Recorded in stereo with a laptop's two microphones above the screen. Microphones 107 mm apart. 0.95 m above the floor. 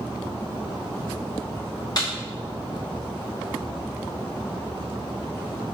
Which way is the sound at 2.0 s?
40° left (ahead or behind).